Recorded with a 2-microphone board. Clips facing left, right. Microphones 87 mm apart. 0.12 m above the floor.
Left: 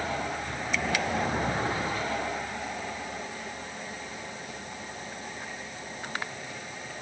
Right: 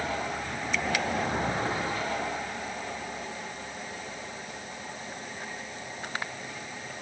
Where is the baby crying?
No baby crying in this recording.